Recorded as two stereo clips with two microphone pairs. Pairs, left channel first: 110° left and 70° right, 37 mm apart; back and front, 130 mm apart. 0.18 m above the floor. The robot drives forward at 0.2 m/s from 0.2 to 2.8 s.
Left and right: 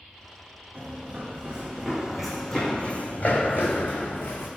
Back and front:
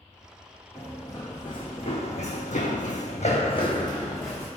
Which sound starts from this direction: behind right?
Running footsteps, at 0.8 s.